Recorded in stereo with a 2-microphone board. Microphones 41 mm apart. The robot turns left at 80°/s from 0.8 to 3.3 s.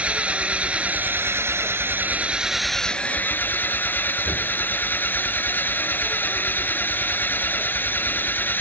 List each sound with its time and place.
0.0 s an engine running: 30° right; by 8.6 s 130° left